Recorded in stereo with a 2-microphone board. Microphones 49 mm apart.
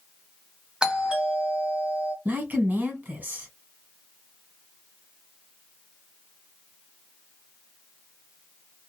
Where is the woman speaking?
35° right (ahead or behind), 1.6 m.